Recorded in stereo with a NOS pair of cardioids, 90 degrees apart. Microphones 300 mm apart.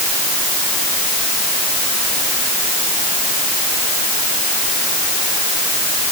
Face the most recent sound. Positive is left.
No sound to turn to.